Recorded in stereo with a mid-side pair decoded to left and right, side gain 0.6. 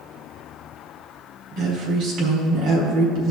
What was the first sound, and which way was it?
A woman speaking, 65° right.